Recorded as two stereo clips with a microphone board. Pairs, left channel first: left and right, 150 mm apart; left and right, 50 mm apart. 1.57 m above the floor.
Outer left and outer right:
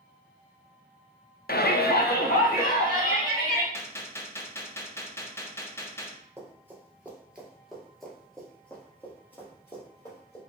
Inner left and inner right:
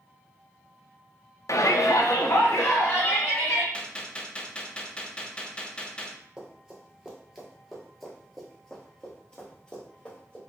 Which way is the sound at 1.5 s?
70° left (ahead or behind).